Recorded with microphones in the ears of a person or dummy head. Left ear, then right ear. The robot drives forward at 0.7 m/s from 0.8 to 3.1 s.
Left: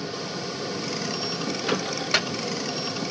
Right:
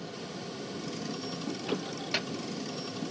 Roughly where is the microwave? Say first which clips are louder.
Left 9 dB; left.